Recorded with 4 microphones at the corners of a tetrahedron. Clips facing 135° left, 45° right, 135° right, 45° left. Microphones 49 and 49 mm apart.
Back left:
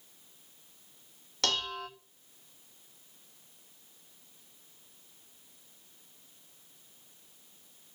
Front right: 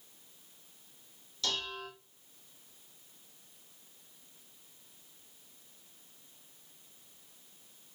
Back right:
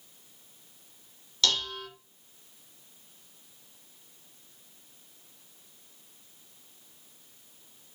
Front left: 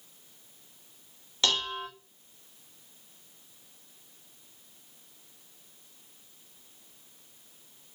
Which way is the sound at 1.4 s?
110° left.